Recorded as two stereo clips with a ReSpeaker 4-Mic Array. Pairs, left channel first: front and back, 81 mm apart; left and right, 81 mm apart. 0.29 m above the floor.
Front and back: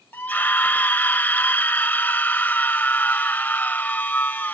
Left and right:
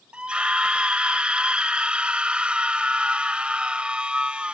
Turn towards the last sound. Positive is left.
turn(degrees=-30)